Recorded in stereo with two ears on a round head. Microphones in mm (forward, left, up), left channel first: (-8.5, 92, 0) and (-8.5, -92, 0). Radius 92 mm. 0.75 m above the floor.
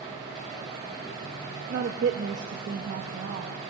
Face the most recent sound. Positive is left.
turn(degrees=-50)  # may be behind; listen again after turning